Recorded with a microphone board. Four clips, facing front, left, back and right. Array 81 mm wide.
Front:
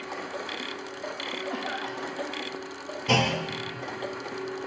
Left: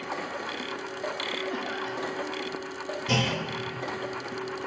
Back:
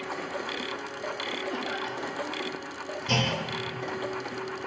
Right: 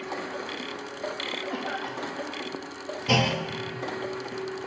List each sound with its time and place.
1.5 s a cough: 35° right, 1.8 m
3.1 s a clunk: 35° right, 0.7 m